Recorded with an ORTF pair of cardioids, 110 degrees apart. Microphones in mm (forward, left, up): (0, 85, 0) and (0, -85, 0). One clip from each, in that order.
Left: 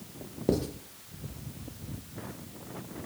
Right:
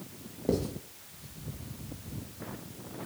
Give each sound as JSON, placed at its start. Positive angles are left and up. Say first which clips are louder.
{"t": 0.5, "sound": "writing", "louder": "left 1 dB", "azimuth_deg": 15, "distance_m": 0.6}